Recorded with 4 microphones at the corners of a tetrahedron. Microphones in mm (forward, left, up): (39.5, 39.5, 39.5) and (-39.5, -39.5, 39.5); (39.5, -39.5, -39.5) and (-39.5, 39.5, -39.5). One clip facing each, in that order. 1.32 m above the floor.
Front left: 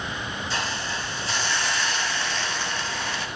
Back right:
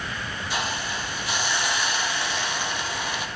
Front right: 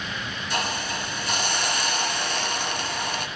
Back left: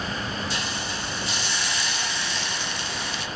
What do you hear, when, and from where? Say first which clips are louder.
0.5 s a hiss: back right 2 dB, front right 3 dB; 60° right, 0.7 m